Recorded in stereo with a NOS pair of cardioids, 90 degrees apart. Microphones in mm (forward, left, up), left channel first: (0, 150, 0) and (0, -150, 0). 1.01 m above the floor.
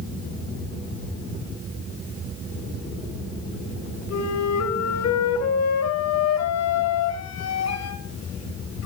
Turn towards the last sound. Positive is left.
turn(degrees=60)